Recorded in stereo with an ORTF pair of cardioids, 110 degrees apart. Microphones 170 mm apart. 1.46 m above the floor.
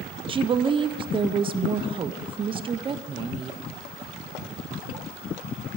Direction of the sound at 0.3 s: 30° right.